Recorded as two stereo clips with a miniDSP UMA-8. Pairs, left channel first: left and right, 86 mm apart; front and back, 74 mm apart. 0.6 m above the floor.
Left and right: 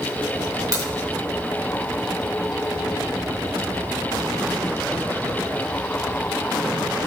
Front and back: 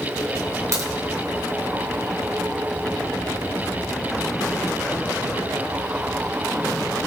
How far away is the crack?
About 3.5 m.